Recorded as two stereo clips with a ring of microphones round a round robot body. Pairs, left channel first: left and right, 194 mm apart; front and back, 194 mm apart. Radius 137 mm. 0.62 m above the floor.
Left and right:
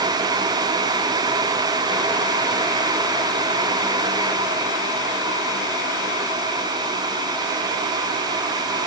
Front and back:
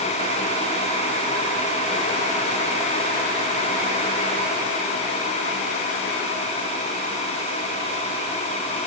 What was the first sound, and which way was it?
Only background noise.